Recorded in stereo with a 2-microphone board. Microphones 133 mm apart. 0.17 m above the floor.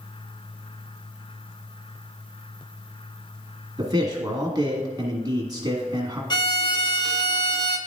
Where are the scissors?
I don't hear scissors.